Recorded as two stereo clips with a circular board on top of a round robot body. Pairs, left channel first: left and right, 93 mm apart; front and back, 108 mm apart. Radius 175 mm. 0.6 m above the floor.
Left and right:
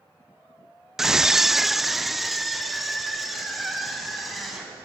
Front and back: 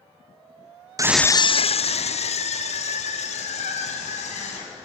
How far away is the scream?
About 0.6 m.